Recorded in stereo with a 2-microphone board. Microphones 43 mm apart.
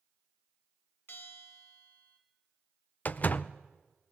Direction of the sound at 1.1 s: 60° left (ahead or behind).